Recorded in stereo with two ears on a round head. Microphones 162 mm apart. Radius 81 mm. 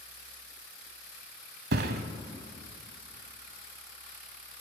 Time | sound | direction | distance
1.7 | a thud | 60° right (ahead or behind) | 1.1 m